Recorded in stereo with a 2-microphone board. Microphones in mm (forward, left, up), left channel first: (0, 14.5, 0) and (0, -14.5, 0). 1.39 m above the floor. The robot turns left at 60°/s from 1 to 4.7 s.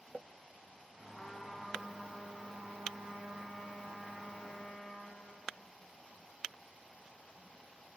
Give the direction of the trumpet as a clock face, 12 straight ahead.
11 o'clock.